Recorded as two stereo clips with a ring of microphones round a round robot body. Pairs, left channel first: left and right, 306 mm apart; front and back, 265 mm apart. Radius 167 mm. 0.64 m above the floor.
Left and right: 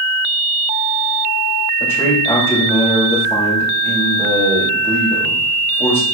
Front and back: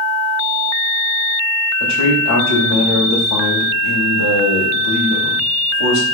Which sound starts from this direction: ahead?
A man speaking, at 1.8 s.